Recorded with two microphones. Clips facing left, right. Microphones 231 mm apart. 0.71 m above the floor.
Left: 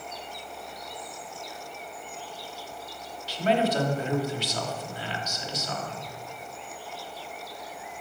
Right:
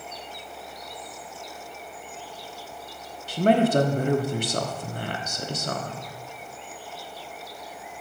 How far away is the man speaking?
About 1.2 m.